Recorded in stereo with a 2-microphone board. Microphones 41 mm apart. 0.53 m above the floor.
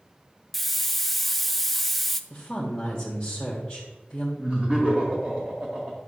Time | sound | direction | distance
0.5 | a hiss | 5° left (ahead or behind) | 0.6 m
2.3 | a woman speaking | 10° left (ahead or behind) | 2 m
4.4 | laughter | 30° right (ahead or behind) | 2.5 m